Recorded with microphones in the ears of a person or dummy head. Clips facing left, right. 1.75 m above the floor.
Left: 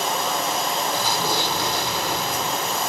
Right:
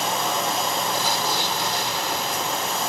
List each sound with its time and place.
0.9 s an explosion: 80° left